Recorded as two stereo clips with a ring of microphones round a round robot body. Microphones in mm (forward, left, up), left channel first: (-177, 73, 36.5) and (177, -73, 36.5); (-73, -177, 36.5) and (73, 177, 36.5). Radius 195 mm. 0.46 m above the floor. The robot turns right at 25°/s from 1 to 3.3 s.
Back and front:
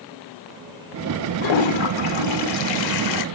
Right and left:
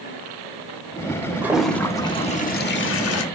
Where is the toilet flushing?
150° left, 0.9 m; by 3.2 s 160° right, 0.9 m.